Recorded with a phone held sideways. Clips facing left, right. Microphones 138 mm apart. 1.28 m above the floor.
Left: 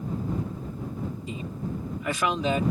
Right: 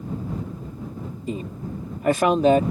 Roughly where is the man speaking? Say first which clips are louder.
Right 3 dB; right.